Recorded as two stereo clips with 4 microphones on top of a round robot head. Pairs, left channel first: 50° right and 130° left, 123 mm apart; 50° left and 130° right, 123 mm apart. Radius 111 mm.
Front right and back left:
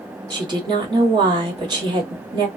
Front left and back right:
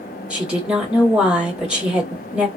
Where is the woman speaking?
150° left, 1.5 m.